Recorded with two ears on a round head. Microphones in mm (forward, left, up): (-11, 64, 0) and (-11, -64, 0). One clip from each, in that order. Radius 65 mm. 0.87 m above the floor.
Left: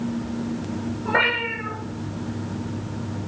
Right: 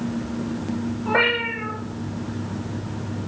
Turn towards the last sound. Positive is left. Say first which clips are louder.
# right 1 dB
turn(degrees=5)  # may be behind; listen again after turning